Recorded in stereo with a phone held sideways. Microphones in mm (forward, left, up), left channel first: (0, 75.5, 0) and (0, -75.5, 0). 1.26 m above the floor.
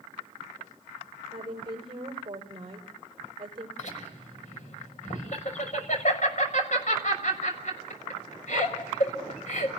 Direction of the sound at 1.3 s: 35° right (ahead or behind).